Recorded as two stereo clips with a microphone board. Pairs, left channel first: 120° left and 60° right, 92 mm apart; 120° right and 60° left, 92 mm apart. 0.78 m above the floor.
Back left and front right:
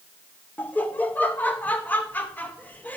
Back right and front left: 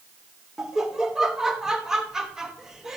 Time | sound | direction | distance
0.6 | laughter | 135° left | 0.8 m